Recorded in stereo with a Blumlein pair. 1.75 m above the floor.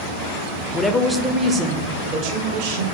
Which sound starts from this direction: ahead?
A woman speaking, at 0.7 s.